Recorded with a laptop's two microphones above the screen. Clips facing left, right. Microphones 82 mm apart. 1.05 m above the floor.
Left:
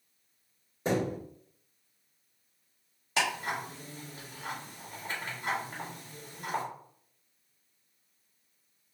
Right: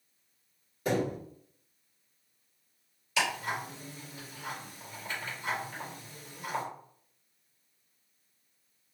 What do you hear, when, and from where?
0.8 s a thud: 25° left (ahead or behind), 1.5 m
3.2 s ticking: 40° left (ahead or behind), 1.7 m